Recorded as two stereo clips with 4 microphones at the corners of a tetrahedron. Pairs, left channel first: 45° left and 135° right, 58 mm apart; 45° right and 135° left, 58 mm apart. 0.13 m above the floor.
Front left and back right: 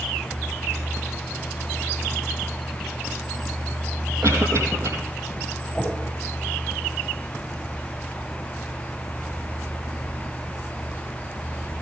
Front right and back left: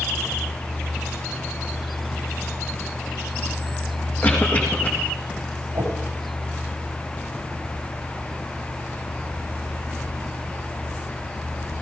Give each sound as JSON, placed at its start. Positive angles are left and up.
{"t": 4.2, "sound": "a cough", "azimuth_deg": -105, "distance_m": 4.5}
{"t": 5.7, "sound": "a whoosh", "azimuth_deg": 125, "distance_m": 5.0}